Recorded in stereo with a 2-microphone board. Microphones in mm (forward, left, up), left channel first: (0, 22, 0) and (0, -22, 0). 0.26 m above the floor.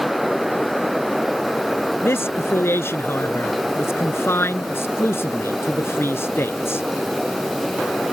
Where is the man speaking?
60° left (ahead or behind).